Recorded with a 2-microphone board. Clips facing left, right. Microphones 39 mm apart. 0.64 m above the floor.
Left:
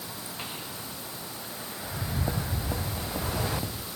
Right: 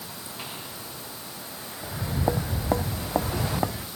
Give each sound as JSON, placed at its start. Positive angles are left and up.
{"t": 1.8, "sound": "footsteps", "side_deg": -25}